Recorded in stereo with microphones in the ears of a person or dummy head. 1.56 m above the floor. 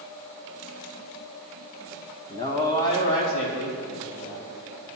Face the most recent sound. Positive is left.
turn(degrees=65)  # may be behind; listen again after turning